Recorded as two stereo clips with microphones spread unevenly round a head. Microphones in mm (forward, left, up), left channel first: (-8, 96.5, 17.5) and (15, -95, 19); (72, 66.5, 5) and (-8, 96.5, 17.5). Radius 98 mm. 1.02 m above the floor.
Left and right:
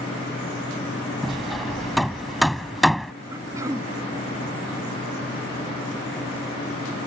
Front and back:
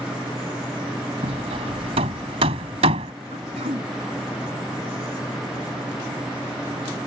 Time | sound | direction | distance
1.2 | hammering | 175° right | ?
3.3 | throat clearing | 160° right | ?